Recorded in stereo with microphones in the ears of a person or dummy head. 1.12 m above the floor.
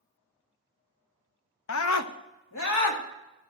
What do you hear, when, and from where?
1.7 s a scream: 60° left (ahead or behind), 0.7 m; by 3.0 s 65° left (ahead or behind), 2 m